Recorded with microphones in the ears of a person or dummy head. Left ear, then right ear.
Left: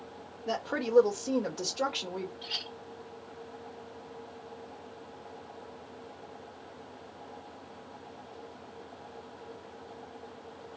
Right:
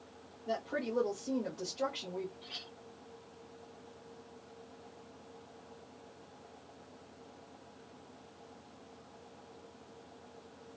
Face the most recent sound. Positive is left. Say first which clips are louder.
# left 9 dB
turn(degrees=45)  # may be behind; listen again after turning